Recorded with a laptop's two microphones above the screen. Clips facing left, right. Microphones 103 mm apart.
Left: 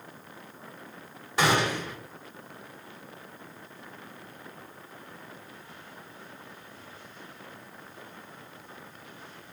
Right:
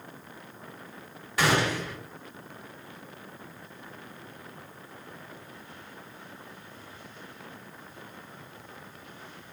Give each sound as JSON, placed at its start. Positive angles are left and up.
{"t": 1.4, "sound": "a gunshot", "side_deg": 25, "distance_m": 1.3}